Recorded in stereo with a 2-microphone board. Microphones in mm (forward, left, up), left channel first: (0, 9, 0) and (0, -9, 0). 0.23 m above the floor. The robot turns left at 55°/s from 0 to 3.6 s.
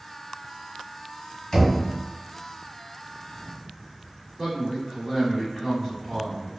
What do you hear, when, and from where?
1.5 s knocking: 35° left (ahead or behind), 1.6 m; by 1.8 s 25° left (ahead or behind), 1.6 m
4.4 s a man speaking: 15° right (ahead or behind), 1.2 m